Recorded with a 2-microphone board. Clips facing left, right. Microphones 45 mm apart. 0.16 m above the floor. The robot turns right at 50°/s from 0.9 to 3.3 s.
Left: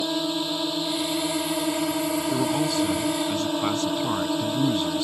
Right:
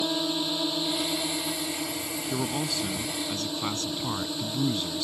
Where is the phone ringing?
No phone ringing in this recording.